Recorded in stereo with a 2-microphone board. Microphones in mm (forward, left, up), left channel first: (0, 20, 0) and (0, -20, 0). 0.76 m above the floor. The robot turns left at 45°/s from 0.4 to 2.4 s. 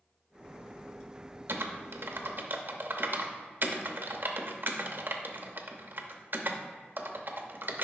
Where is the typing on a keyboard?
60° right (ahead or behind), 0.7 m; by 7.8 s 55° right (ahead or behind), 0.7 m.